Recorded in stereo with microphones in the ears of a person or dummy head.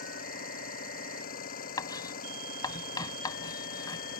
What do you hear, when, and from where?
0.0 s an engine running: 50° left (ahead or behind)
1.8 s writing: 25° left (ahead or behind)